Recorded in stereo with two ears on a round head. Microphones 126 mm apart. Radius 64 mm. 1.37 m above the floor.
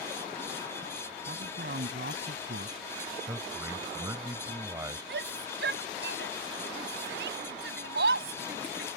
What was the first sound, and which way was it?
A man speaking, 65° right (ahead or behind).